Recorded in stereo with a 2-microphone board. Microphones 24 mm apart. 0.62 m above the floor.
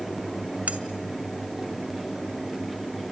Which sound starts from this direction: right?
Cutlery clinking, at 0.7 s.